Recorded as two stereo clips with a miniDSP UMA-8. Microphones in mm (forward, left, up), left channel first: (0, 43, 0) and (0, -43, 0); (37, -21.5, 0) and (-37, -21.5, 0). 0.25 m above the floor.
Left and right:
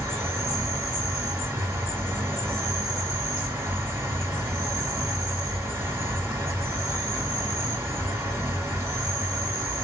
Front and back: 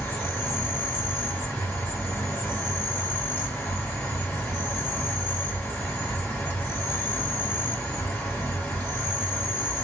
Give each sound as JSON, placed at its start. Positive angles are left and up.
{"t": 0.0, "sound": "an insect", "azimuth_deg": -60, "distance_m": 1.9}